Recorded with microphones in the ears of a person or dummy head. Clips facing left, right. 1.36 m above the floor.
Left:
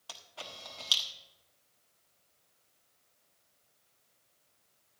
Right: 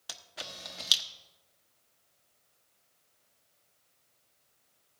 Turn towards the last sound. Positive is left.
turn(degrees=-25)  # may be behind; listen again after turning